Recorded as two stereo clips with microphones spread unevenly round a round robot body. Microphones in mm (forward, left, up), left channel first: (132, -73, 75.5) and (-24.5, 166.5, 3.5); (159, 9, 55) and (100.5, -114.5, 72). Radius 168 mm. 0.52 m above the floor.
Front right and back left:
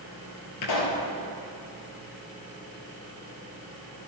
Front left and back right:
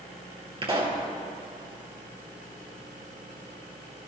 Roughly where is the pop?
Ahead right.